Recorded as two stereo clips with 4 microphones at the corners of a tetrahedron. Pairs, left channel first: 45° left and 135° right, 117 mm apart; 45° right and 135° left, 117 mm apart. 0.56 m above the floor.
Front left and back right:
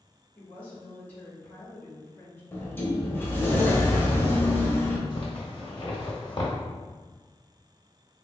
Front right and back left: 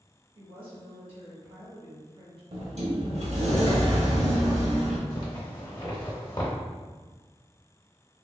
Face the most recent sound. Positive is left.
turn(degrees=5)